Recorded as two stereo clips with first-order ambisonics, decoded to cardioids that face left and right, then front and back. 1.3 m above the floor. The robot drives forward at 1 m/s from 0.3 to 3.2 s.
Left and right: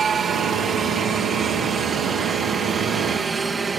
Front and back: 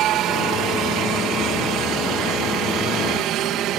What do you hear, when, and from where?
0.0 s a helicopter: 150° right; by 3.8 s 160° right